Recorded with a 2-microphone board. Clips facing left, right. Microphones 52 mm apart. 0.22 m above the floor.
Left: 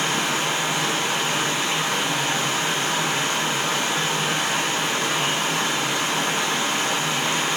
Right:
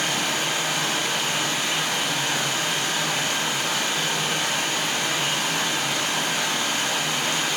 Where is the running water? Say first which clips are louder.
Left 2 dB; 25° left (ahead or behind), 3.5 m.